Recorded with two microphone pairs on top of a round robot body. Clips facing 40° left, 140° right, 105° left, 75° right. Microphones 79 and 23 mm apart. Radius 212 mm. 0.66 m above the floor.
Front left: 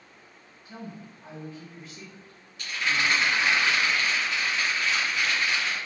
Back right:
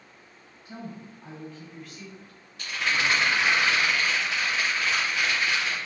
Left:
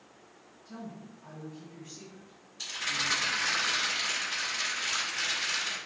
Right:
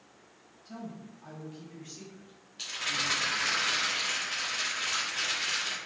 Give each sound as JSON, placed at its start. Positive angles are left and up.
{"t": 0.7, "sound": "a woman speaking", "azimuth_deg": -100, "distance_m": 1.0}
{"t": 2.6, "sound": "a rattle", "azimuth_deg": -85, "distance_m": 0.6}